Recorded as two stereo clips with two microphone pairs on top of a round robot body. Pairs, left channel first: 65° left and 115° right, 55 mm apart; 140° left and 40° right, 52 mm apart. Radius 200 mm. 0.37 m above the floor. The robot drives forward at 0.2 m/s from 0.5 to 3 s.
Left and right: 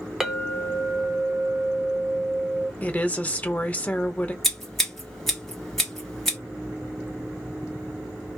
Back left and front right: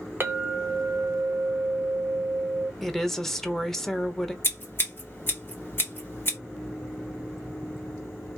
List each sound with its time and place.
0.2 s a clink: 25° right, 1.0 m; by 2.7 s 70° right, 0.9 m
2.8 s a woman speaking: 60° left, 0.9 m; by 4.3 s 65° left, 0.9 m
4.4 s scissors: 135° left, 1.9 m